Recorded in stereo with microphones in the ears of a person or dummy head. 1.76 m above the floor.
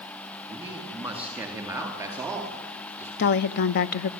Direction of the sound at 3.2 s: 50° left (ahead or behind).